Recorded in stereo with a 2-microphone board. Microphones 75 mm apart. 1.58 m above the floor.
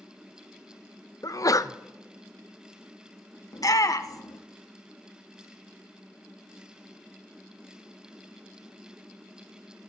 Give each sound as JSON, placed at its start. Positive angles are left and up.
{"t": 1.2, "sound": "a sneeze", "side_deg": 55, "distance_m": 0.6}
{"t": 3.5, "sound": "a shout", "side_deg": 55, "distance_m": 1.2}